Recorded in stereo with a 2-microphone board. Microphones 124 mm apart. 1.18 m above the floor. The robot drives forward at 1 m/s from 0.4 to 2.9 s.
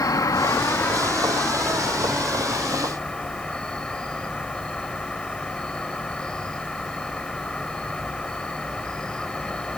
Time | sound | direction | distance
0.0 | an insect | 25° left (ahead or behind) | ?